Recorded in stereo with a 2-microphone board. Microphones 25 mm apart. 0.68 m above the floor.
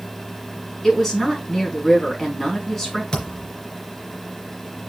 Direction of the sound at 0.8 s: 15° left (ahead or behind).